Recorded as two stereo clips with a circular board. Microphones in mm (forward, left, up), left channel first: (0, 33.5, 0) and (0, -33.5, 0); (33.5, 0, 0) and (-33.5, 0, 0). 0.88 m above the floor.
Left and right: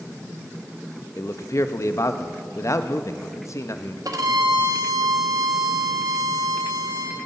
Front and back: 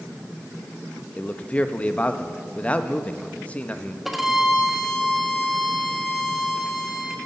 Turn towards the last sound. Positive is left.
turn(degrees=-95)